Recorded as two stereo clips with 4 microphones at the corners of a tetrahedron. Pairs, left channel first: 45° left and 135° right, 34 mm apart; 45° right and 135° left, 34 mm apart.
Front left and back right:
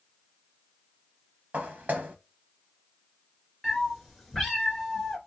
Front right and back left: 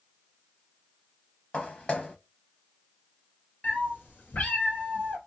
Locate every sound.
1.5 s footsteps: 105° right, 0.8 m
3.6 s a cat meowing: 30° right, 1.3 m